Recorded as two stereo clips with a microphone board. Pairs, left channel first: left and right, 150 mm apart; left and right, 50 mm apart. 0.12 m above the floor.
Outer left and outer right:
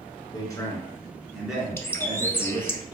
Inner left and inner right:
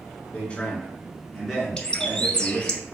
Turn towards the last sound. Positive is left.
turn(degrees=15)  # may be behind; listen again after turning